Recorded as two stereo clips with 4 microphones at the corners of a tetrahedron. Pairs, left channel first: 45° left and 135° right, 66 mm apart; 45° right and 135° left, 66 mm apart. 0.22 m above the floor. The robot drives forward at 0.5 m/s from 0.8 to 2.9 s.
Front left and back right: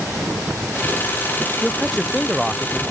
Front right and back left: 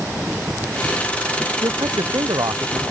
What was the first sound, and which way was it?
A man speaking, 135° left.